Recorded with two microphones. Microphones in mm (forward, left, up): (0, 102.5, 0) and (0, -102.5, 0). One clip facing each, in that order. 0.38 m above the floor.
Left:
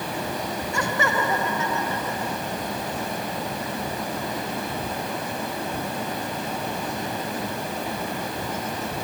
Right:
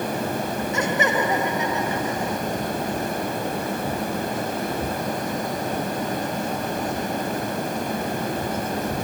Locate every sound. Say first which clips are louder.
0.7 s laughter: right 3 dB; 20° right (ahead or behind); by 2.4 s 15° right (ahead or behind)